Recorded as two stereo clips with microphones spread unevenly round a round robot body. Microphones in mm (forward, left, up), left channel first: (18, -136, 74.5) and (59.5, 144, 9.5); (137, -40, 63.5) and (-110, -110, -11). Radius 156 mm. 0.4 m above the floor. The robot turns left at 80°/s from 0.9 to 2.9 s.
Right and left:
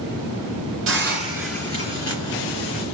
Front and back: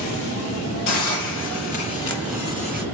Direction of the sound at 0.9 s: 40° left.